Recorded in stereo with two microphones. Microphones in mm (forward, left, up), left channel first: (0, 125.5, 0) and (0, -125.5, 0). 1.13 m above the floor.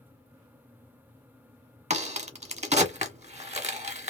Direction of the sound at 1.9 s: 25° right (ahead or behind).